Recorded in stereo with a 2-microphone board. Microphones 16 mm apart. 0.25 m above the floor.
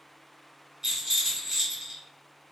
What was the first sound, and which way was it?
A rattle, 30° right (ahead or behind).